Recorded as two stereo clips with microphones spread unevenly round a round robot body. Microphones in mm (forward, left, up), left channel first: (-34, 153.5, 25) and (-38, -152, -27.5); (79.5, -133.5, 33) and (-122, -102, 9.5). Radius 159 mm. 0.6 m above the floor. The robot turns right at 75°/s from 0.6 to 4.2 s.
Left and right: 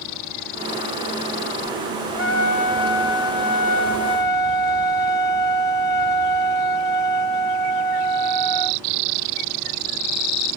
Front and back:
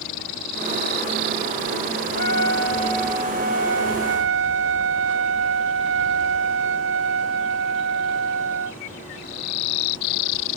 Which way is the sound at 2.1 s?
15° left.